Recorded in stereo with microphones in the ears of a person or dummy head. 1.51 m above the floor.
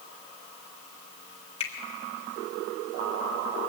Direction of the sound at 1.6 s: 35° left (ahead or behind).